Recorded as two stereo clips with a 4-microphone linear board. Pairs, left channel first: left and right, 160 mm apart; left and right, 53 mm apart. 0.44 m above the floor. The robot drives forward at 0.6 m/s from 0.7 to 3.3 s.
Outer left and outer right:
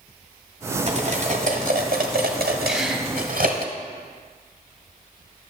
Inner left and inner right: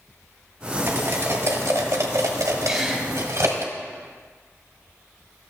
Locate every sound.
0.9 s cutlery clinking: 45° right (ahead or behind), 1.5 m; by 3.7 s 60° right (ahead or behind), 1.2 m
2.7 s a gasp: 5° right (ahead or behind), 1.5 m